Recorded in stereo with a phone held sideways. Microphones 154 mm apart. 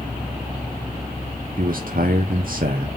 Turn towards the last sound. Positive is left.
turn(degrees=-65)  # may be behind; listen again after turning